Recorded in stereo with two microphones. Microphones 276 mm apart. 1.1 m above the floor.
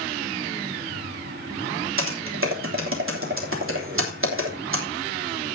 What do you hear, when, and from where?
2.0 s typing on a keyboard: 50° right (ahead or behind), 3 m